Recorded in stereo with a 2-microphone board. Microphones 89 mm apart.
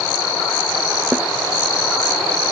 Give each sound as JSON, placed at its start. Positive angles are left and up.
{"t": 1.1, "sound": "a snare drum", "side_deg": -20}